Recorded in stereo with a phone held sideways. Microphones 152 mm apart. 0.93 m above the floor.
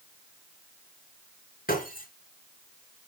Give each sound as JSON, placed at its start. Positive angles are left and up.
{"t": 1.7, "sound": "breaking glass", "side_deg": 75, "distance_m": 5.5}